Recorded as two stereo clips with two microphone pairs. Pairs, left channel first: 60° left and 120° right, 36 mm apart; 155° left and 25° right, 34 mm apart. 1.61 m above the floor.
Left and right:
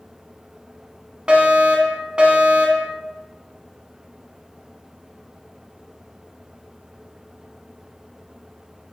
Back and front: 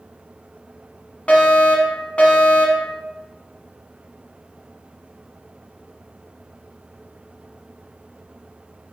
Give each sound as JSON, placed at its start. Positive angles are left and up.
{"t": 1.3, "sound": "a fire alarm", "azimuth_deg": -170, "distance_m": 0.9}